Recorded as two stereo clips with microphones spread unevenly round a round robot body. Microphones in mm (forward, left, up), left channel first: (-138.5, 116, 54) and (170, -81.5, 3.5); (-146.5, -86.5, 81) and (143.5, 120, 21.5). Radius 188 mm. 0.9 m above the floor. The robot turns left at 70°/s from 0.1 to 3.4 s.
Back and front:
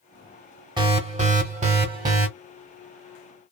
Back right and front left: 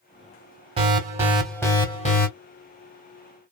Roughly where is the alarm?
Ahead.